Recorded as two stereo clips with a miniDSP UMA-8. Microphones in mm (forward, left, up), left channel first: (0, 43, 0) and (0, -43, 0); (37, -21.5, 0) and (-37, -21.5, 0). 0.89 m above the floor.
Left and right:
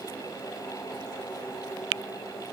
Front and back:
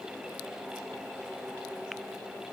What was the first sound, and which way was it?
Only background noise.